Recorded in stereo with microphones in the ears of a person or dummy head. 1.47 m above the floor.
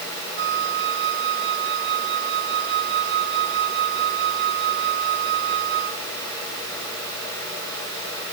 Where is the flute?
60° right (ahead or behind).